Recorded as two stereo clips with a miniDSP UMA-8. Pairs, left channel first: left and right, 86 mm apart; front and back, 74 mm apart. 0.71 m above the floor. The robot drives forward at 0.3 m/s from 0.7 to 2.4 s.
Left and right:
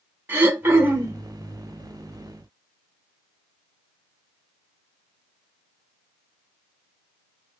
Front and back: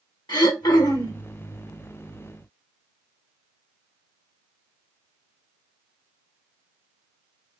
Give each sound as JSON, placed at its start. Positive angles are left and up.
{"t": 0.3, "sound": "throat clearing", "azimuth_deg": -25, "distance_m": 0.9}